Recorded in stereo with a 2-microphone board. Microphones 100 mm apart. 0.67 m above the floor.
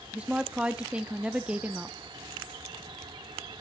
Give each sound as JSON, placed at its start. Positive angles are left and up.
{"t": 0.1, "sound": "a woman speaking", "side_deg": -10, "distance_m": 0.7}